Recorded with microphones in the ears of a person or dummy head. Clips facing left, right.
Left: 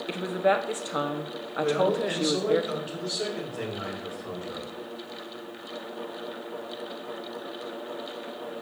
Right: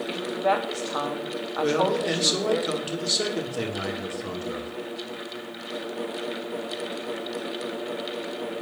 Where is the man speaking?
50° right (ahead or behind), 2.5 m.